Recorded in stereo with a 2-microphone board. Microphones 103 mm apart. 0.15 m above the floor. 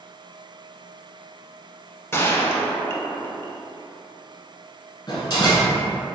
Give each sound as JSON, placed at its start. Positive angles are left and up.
{"t": 2.1, "sound": "a gunshot", "side_deg": 25, "distance_m": 0.5}
{"t": 5.1, "sound": "a door slam", "side_deg": 45, "distance_m": 1.2}